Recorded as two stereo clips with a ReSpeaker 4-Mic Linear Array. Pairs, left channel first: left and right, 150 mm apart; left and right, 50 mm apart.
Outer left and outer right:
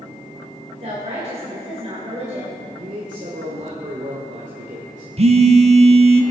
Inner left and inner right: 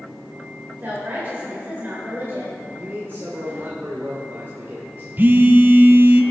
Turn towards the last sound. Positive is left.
turn(degrees=-45)  # may be behind; listen again after turning